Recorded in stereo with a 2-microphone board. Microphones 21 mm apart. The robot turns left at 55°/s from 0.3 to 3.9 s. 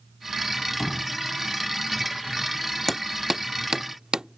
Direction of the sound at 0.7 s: Centre (ahead or behind).